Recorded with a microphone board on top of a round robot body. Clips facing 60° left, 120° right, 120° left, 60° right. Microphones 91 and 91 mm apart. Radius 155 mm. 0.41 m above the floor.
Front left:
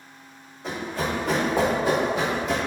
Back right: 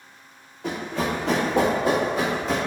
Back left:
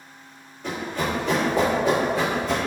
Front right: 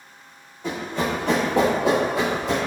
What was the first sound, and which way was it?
Running footsteps, 145° right.